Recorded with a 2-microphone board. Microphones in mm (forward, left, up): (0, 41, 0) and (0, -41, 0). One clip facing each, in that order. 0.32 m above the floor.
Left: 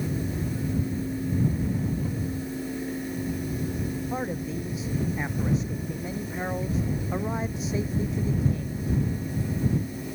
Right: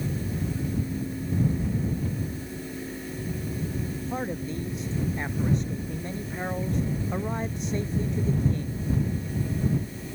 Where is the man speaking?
Centre (ahead or behind).